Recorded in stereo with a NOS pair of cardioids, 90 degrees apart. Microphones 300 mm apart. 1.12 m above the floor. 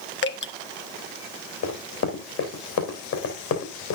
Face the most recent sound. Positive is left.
turn(degrees=65)